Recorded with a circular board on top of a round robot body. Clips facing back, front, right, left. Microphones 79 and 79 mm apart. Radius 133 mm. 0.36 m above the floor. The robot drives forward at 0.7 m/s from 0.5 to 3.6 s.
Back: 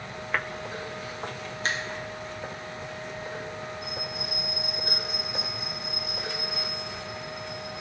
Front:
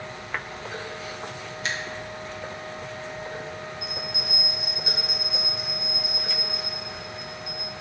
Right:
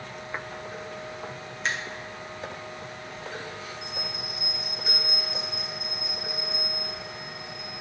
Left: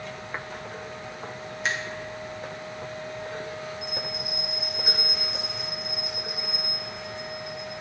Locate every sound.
1.6 s a finger snap: 175° left, 1.4 m; by 1.8 s straight behind, 1.5 m
3.8 s a bell: straight ahead, 2 m